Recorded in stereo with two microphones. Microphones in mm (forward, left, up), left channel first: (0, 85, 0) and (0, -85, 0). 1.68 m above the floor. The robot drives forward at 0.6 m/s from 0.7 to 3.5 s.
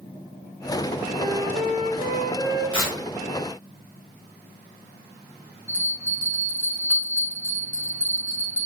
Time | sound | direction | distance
1.2 | a flute | 30° right (ahead or behind) | 1.7 m
2.7 | tearing paper | 25° left (ahead or behind) | 2 m
5.7 | a bell | 10° left (ahead or behind) | 2 m